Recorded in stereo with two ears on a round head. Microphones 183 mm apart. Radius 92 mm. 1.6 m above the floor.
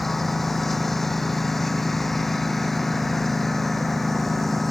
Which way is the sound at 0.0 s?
Centre (ahead or behind).